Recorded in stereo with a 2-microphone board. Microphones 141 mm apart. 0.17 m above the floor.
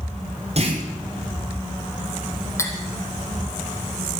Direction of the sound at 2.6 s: 20° left (ahead or behind).